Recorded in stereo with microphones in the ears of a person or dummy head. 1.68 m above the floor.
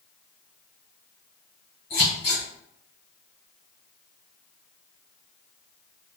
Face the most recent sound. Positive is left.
turn(degrees=30)  # may be behind; listen again after turning